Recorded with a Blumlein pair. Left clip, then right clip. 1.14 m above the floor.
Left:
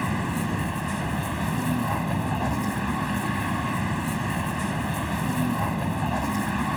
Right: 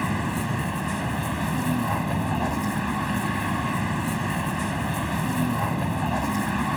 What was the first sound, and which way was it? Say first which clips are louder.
A vehicle: right 1 dB; 5° right.